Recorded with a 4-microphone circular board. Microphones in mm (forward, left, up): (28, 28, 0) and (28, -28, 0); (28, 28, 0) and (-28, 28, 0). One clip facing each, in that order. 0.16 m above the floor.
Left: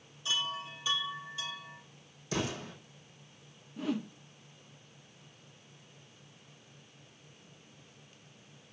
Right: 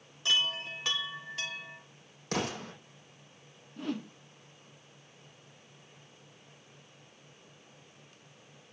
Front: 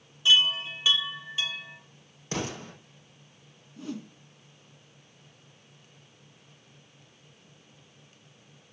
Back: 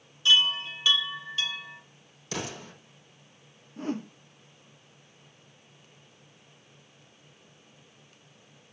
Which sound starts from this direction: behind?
A whoosh, at 3.8 s.